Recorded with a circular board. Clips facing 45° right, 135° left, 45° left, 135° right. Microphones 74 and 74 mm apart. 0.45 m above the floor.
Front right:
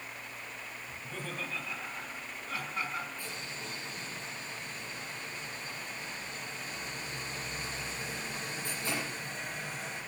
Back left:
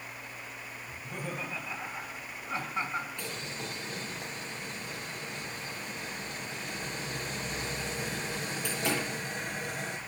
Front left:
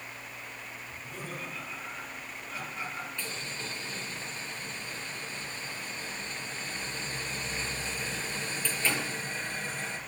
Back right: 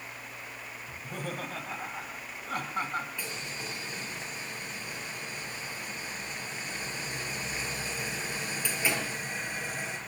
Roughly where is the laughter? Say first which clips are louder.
Back left 3 dB, back right 5 dB; behind right.